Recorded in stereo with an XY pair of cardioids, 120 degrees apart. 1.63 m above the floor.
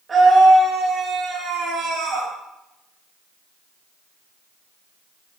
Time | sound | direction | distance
0.1 | a scream | 30° right | 3 m